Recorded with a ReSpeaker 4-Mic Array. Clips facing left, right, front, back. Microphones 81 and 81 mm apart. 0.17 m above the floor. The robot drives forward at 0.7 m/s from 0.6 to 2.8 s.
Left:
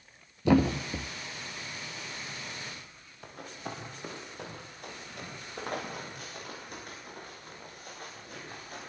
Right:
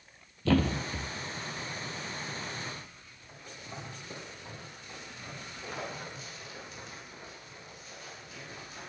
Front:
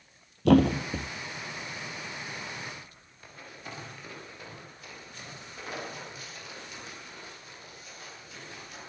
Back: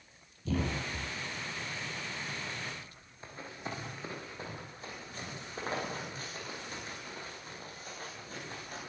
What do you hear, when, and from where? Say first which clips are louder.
0.5 s a thud: left 3 dB, front 13 dB; 15° left, 1.7 m; by 1.1 s 20° left, 1.4 m
3.2 s running footsteps: left 7 dB, back 3 dB; 115° left, 9 m; by 8.9 s 130° left, 15 m